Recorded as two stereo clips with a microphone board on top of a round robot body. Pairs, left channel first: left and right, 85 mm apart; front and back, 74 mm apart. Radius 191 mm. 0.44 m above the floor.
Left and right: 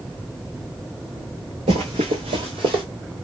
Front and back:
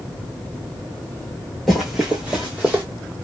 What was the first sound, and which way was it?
Running footsteps, 85° right.